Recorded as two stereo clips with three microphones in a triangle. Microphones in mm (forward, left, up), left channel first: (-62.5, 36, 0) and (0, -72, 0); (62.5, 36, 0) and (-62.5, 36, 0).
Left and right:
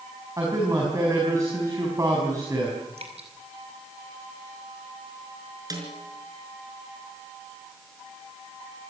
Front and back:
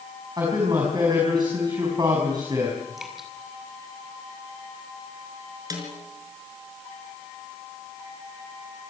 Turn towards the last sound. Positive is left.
turn(degrees=-120)